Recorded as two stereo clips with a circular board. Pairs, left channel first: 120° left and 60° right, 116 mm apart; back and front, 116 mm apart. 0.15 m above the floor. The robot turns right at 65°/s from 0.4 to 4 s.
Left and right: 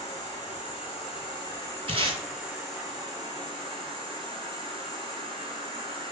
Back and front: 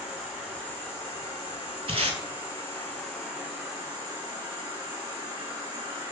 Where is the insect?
90° left, 1.8 m; by 6.1 s 40° right, 1.8 m.